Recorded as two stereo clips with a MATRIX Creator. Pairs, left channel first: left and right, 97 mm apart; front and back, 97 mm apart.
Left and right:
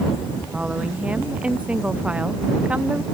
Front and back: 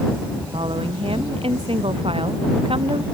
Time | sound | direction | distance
0.5 | a woman speaking | 170° right | ?